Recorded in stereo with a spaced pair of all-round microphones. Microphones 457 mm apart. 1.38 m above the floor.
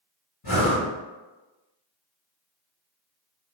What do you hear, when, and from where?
0.4 s breathing: 55° left (ahead or behind), 1.5 m